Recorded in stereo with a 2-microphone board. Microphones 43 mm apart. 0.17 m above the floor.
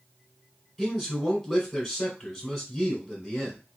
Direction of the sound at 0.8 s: Centre (ahead or behind).